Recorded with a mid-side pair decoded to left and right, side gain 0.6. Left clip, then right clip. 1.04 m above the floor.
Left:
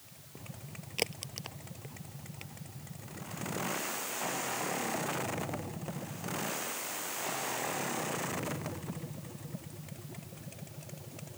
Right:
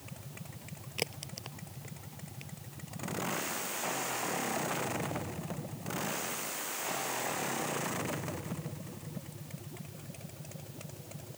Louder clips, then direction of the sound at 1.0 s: Left 2 dB; 15° left.